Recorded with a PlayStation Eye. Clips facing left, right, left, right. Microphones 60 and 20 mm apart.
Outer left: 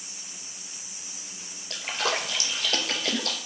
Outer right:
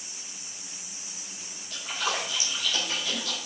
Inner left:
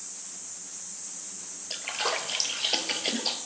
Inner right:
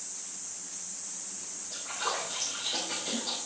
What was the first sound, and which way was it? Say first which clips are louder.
A splash: outer left 2 dB, inner left 4 dB; 85° left.